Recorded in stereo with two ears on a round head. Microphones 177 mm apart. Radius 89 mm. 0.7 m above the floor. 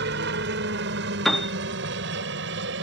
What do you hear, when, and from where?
0.0 s a helicopter: 60° right (ahead or behind); by 2.8 s 65° right (ahead or behind)
1.2 s a piano: centre (ahead or behind)